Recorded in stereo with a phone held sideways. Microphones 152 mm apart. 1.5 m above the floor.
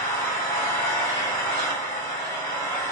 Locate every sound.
0.0 s an engine running: 20° left (ahead or behind), 1.1 m